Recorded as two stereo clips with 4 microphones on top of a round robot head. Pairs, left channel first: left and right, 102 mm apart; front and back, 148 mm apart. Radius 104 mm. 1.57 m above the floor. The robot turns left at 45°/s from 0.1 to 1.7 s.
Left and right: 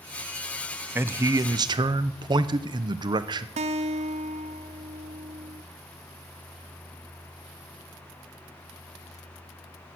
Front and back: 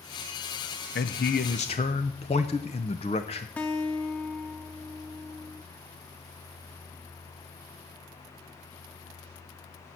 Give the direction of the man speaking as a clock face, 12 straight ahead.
1 o'clock.